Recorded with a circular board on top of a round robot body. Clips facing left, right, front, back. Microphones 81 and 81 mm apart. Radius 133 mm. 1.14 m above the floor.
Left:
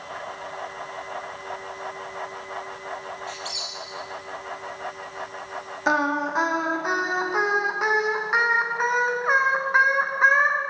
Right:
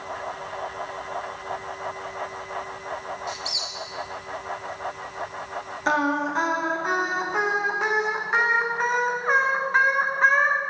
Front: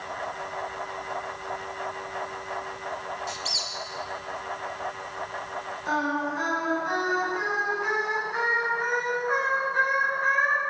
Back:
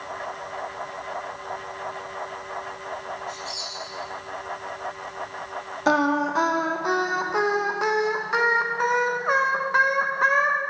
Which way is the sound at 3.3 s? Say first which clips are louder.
Right 2 dB, back 1 dB; 15° right.